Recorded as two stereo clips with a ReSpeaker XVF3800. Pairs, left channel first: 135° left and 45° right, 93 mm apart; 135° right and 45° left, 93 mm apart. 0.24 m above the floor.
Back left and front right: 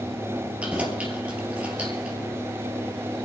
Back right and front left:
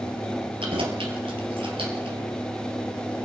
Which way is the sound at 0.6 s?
30° left.